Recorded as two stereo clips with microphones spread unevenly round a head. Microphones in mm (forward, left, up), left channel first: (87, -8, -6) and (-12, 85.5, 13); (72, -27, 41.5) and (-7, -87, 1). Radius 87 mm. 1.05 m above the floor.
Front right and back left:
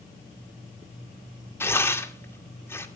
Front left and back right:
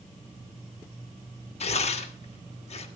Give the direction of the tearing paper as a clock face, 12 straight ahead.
11 o'clock.